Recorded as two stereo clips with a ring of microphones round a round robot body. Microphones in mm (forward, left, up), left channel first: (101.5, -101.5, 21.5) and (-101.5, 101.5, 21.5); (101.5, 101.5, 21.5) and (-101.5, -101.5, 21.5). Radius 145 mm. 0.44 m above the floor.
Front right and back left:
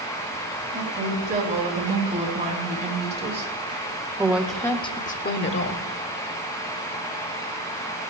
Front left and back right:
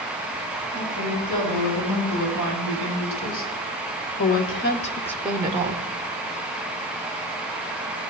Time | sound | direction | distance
0.7 | a woman speaking | 75° left | 5 m